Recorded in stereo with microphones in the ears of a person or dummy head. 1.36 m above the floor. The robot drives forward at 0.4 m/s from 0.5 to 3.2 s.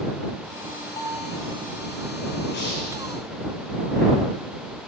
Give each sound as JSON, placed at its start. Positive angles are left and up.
{"t": 1.0, "sound": "a bell", "side_deg": 20, "distance_m": 8.5}
{"t": 2.5, "sound": "breathing", "side_deg": 60, "distance_m": 6.5}